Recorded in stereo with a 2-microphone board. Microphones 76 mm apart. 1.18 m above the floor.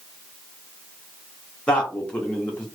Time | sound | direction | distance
1.7 | a man speaking | 15° left (ahead or behind) | 1.1 m